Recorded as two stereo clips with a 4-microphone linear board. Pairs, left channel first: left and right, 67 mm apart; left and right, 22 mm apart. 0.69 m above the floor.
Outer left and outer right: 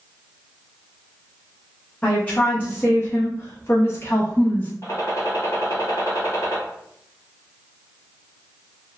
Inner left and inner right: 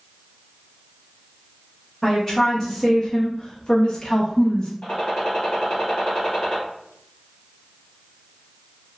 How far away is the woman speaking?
About 1.0 m.